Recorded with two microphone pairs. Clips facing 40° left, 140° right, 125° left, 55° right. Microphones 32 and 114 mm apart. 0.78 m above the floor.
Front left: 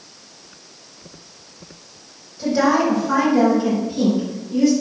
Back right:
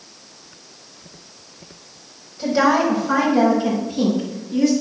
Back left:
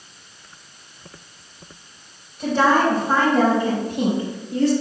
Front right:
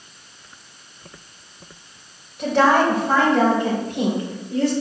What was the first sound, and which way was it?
A woman speaking, 60° right.